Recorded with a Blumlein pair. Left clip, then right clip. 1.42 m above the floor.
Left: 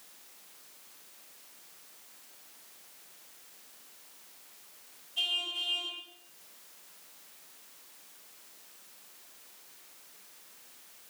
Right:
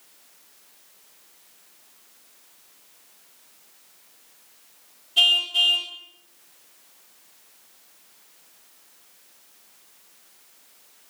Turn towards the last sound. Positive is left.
turn(degrees=-35)